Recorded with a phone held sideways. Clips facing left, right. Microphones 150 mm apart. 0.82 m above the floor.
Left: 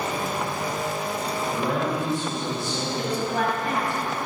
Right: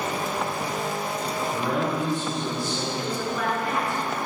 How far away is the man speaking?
About 4.5 m.